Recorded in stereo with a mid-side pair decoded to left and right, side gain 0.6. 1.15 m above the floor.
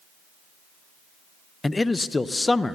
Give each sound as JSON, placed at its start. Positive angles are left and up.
{"t": 1.6, "sound": "a man speaking", "azimuth_deg": 15, "distance_m": 0.5}